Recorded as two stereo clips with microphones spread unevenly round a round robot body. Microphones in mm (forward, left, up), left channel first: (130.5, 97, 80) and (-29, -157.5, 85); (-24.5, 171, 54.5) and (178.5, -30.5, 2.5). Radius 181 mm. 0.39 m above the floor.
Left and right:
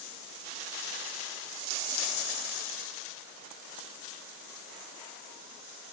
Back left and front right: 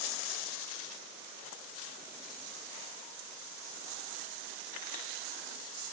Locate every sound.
Only background noise.